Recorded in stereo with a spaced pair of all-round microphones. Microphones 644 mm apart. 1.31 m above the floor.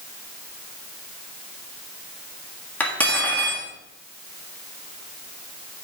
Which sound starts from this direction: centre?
Cutlery clinking, at 2.8 s.